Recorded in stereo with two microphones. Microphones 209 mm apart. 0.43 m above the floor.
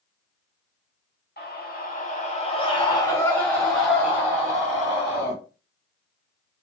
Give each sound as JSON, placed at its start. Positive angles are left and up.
{"t": 1.4, "sound": "a scream", "side_deg": 50, "distance_m": 1.6}